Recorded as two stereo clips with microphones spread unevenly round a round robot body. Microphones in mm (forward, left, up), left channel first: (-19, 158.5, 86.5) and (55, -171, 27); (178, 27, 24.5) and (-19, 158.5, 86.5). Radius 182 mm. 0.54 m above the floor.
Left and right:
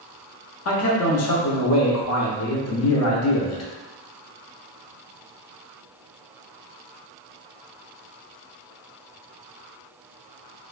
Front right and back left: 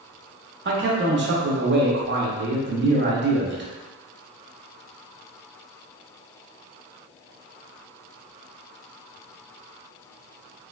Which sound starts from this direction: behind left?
A man speaking, at 0.7 s.